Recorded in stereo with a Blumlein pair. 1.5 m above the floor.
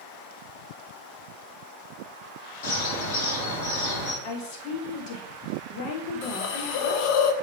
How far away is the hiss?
About 1.2 m.